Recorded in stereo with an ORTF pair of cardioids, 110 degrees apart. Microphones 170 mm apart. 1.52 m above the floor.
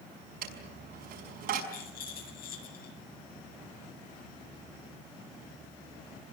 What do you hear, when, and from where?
0.4 s a dropped coin: 70° right, 5.5 m
1.7 s a rattle: 60° left, 8 m